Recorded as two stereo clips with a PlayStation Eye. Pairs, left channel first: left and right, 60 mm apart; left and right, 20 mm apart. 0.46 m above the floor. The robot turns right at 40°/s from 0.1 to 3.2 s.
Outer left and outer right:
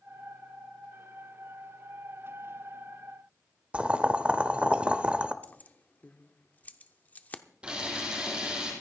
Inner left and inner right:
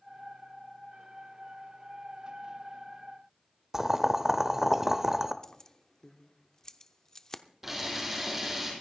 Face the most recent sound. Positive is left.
turn(degrees=-20)  # may be behind; listen again after turning